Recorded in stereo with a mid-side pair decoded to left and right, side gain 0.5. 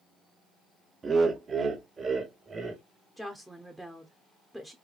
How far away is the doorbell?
I don't hear a doorbell.